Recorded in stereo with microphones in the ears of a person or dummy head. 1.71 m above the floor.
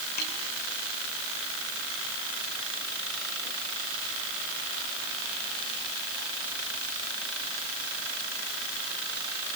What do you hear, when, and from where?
0.2 s a snare drum: 55° left (ahead or behind), 6 m